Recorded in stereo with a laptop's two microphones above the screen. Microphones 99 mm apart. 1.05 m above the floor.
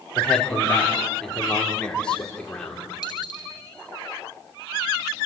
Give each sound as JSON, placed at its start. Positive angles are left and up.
{"t": 0.1, "sound": "a man speaking", "side_deg": 10, "distance_m": 3.0}
{"t": 3.0, "sound": "a dropped coin", "side_deg": 45, "distance_m": 3.0}